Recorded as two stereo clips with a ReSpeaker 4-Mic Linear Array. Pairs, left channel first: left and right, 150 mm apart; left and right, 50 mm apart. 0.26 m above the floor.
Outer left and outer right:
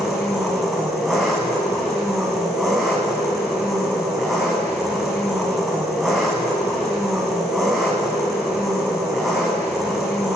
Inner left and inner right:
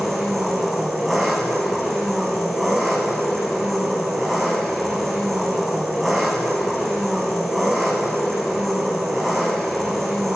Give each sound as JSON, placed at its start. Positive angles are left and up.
{"t": 0.0, "sound": "an engine running", "side_deg": 0, "distance_m": 3.5}